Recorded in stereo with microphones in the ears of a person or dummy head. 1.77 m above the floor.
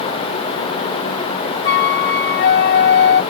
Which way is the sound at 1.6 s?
55° left (ahead or behind).